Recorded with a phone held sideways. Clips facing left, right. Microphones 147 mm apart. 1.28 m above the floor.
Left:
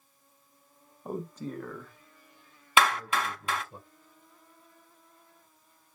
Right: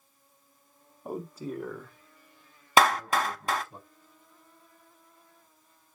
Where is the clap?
40° right (ahead or behind), 0.7 m.